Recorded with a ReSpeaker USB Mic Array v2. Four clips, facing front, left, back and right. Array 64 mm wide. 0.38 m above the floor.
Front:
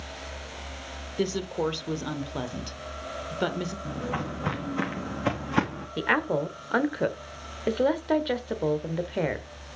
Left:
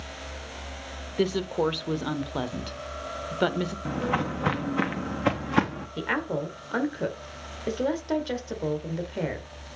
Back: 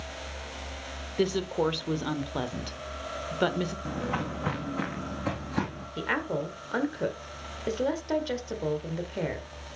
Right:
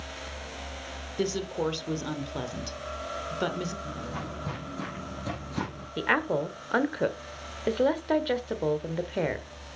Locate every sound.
1.2 s a woman speaking: 115° left, 1.1 m
3.9 s footsteps: 105° left, 1.9 m; by 5.9 s 55° left, 2.5 m
6.0 s a woman speaking: 35° right, 1.2 m